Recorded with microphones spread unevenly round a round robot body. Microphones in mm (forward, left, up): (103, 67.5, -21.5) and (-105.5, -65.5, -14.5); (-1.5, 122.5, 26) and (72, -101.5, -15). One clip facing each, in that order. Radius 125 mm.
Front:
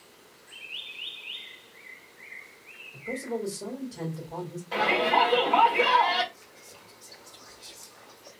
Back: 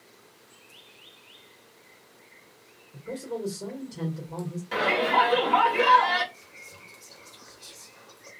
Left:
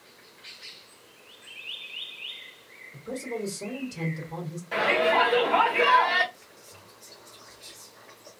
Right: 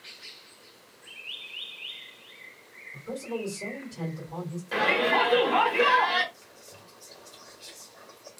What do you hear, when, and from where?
2.9 s a man speaking: 140° left, 1.3 m
4.7 s a shout: 115° right, 1.4 m
6.3 s whispering: 115° right, 1.6 m